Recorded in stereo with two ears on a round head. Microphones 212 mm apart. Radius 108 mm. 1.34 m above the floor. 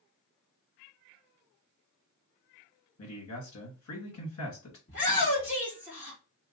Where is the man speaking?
65° left (ahead or behind), 2 m.